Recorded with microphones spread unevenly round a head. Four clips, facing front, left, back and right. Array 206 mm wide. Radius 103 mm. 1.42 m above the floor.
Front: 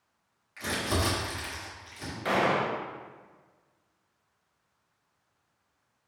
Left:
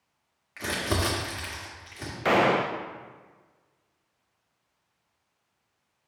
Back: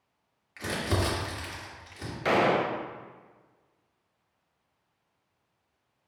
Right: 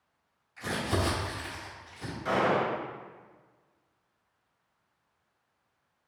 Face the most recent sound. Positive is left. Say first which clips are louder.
# left 4 dB, back 2 dB
turn(degrees=110)